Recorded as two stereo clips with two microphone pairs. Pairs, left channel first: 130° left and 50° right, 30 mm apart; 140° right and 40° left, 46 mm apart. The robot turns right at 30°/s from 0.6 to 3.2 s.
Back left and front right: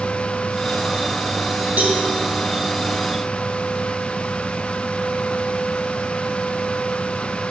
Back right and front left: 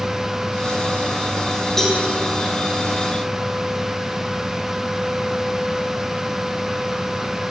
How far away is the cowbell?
About 1.7 m.